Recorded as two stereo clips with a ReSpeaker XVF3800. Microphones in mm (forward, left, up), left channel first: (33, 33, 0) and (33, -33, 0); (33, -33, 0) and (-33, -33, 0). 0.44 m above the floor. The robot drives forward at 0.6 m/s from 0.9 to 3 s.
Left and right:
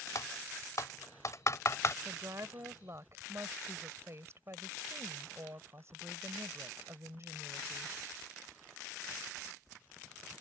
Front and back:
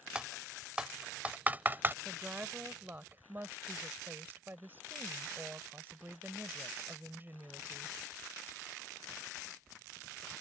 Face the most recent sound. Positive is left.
turn(degrees=-125)